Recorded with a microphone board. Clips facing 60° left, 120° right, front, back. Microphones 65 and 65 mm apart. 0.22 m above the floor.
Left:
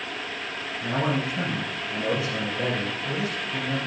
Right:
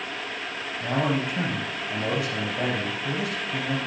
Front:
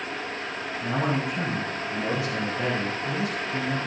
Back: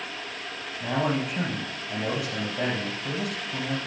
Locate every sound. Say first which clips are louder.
0.8 s a man speaking: right 1 dB, back 1 dB; 150° right, 4 m